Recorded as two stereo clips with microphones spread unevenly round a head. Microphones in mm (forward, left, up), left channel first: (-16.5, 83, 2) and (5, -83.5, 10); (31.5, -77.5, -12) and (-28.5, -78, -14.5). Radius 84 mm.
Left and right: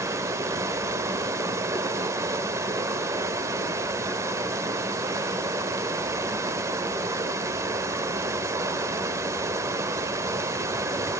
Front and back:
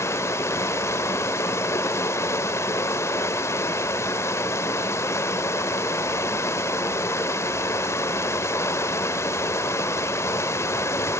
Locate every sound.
0.0 s running water: 15° right, 0.8 m